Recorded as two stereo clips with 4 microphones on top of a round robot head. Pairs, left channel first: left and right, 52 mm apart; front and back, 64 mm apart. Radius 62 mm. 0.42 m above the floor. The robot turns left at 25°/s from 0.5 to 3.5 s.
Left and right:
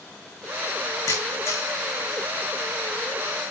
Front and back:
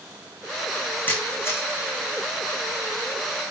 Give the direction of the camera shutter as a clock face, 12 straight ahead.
10 o'clock.